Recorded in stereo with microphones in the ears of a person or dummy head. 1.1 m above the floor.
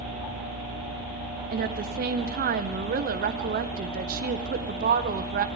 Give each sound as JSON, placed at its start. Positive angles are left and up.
{"t": 1.5, "sound": "a woman speaking", "side_deg": -40, "distance_m": 0.6}